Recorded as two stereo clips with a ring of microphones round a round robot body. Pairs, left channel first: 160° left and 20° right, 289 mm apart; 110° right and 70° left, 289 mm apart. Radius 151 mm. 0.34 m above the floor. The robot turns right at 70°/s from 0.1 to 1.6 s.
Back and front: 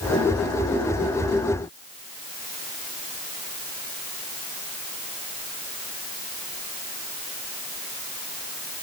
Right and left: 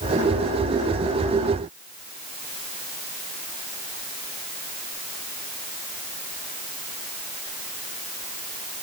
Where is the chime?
No chime in this recording.